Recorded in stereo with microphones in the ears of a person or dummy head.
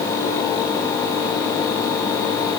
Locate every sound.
Only background noise.